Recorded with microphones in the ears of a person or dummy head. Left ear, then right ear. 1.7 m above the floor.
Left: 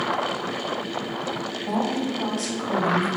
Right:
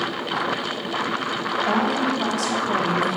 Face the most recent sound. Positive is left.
turn(degrees=-15)  # may be behind; listen again after turning